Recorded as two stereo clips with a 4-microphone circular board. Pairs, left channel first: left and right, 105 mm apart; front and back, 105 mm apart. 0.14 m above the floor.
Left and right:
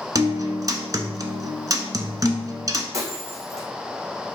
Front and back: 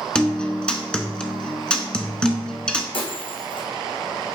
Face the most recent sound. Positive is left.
turn(degrees=-30)